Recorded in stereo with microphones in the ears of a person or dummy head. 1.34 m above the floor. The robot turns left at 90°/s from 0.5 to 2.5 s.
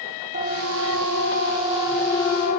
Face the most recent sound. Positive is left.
turn(degrees=50)  # may be behind; listen again after turning